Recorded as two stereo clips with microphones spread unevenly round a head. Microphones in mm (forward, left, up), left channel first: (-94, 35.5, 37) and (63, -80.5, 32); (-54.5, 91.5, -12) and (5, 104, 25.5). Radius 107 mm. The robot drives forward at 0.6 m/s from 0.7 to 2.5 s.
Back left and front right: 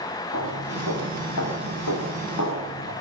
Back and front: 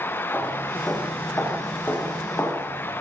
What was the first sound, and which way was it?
Footsteps, 115° left.